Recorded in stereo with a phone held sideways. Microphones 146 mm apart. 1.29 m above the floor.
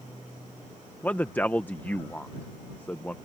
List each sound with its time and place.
1.0 s a man speaking: 15° left (ahead or behind)